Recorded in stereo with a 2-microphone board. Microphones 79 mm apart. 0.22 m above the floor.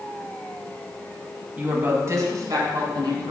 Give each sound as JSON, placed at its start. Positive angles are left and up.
{"t": 1.6, "sound": "a woman speaking", "side_deg": -20, "distance_m": 1.0}